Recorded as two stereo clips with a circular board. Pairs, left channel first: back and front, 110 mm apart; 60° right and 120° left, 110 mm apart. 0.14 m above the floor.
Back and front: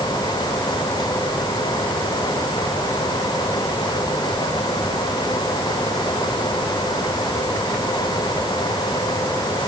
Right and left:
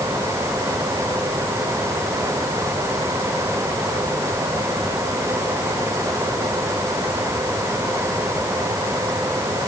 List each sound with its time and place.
Only background noise.